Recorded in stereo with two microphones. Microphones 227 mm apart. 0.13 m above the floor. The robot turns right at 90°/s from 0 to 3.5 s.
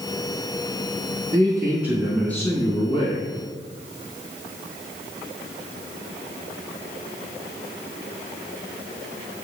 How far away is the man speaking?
About 1.4 m.